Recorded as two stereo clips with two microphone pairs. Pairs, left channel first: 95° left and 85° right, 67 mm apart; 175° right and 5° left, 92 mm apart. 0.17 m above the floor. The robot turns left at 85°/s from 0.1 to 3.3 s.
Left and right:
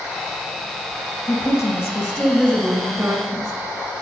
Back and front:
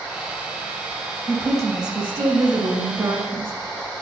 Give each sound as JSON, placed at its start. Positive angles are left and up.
{"t": 1.3, "sound": "a woman speaking", "azimuth_deg": 125, "distance_m": 2.0}